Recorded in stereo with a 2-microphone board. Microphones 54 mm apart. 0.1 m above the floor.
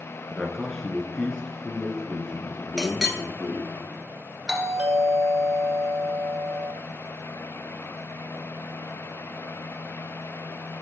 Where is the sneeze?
No sneeze in this recording.